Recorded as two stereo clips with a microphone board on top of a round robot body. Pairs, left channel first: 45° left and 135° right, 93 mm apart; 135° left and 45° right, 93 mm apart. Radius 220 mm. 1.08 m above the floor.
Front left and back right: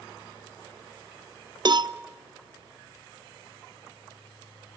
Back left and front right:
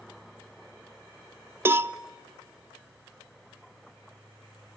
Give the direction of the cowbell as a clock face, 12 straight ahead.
4 o'clock.